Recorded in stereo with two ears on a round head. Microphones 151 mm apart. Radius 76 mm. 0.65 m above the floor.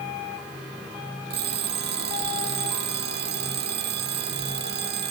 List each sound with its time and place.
1.3 s an alarm clock: 65° right (ahead or behind)